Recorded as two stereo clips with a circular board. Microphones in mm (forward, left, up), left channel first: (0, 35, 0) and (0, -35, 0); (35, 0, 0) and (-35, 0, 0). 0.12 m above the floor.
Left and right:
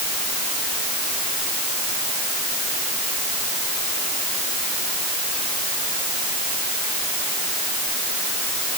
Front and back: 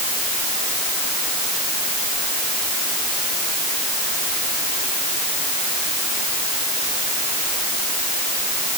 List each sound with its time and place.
Only background noise.